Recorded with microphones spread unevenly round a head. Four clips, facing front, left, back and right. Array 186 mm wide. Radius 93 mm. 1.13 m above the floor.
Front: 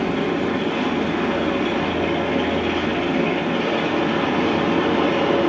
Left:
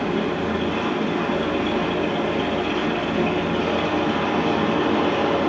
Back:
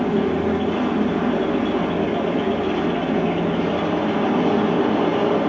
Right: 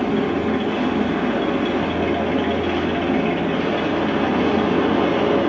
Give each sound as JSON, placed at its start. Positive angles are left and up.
{"t": 0.0, "sound": "a machine running", "azimuth_deg": -120, "distance_m": 4.0}